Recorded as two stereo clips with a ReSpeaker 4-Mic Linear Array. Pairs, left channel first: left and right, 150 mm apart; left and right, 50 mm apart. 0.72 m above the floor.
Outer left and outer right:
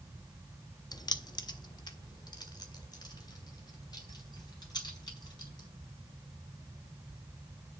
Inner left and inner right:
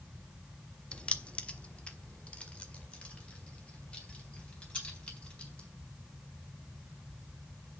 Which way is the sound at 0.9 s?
25° left (ahead or behind).